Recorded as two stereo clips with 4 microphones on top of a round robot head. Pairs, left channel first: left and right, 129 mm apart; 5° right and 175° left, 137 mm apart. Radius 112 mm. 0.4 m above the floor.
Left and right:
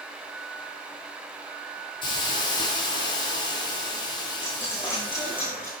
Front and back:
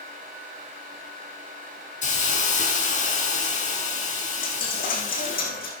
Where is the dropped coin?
10° left, 5 m.